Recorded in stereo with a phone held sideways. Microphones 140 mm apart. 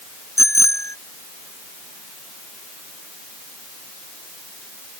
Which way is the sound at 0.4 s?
20° left (ahead or behind).